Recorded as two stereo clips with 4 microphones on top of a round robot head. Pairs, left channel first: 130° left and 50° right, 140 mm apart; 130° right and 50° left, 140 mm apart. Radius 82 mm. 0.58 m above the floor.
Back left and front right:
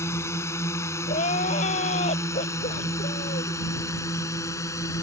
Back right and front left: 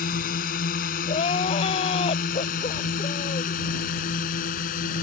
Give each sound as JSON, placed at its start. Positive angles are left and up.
{"t": 0.0, "sound": "a drone", "azimuth_deg": -155}
{"t": 1.1, "sound": "crying", "azimuth_deg": 175}